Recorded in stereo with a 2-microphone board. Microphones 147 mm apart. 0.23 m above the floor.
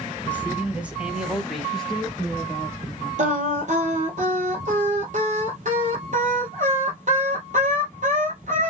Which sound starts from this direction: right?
Singing, at 3.2 s.